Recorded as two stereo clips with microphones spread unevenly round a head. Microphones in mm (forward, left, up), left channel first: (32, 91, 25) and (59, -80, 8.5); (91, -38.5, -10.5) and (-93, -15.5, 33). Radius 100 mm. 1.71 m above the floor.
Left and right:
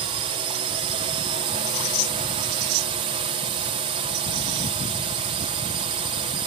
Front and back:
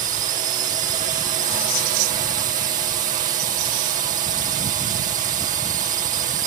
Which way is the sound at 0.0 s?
135° right.